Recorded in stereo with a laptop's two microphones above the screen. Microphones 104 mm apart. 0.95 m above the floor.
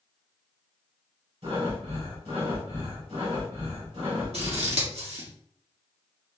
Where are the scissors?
75° right (ahead or behind), 1.6 m.